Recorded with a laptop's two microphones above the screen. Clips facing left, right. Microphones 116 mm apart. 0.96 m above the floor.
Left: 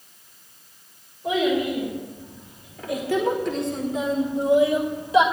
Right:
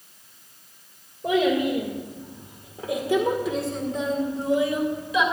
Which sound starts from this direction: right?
A child speaking, at 1.2 s.